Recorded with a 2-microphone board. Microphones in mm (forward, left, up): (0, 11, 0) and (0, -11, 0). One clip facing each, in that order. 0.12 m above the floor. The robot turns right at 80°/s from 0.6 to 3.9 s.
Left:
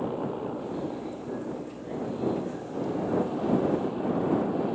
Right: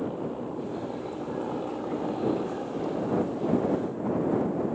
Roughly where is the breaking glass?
No breaking glass in this recording.